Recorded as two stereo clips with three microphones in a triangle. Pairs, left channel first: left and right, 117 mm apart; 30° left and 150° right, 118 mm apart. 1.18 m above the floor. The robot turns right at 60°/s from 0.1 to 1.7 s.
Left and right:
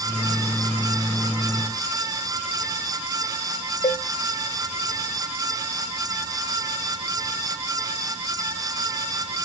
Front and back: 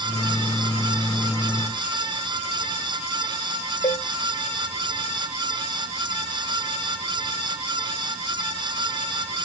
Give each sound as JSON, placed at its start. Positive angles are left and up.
{"t": 3.8, "sound": "a cowbell", "azimuth_deg": 60, "distance_m": 1.4}